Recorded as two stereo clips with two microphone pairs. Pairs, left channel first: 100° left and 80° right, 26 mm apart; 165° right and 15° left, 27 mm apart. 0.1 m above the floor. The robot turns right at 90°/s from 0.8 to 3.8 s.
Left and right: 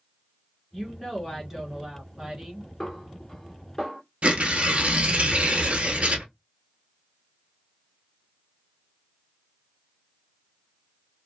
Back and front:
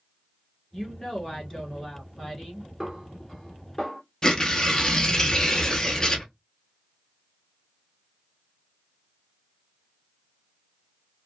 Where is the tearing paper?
105° right, 0.7 m.